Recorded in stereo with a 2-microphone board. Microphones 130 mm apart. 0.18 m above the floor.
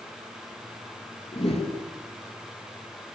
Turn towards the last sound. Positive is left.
turn(degrees=45)  # may be behind; listen again after turning